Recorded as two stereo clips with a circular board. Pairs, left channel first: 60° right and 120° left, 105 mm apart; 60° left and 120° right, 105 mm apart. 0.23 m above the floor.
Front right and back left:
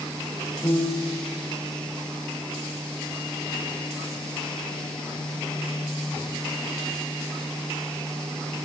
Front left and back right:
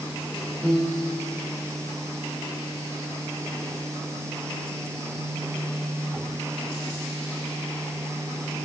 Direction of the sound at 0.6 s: 15° right.